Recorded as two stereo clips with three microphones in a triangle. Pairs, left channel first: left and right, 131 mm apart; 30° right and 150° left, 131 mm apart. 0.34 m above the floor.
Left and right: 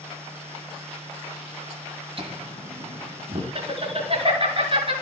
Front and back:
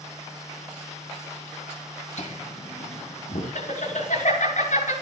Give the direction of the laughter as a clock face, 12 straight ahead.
2 o'clock.